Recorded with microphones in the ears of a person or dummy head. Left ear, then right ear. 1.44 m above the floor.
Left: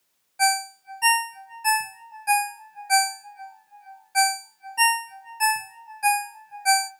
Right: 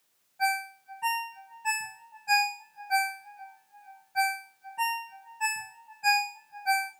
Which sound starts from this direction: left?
A ringtone, at 0.4 s.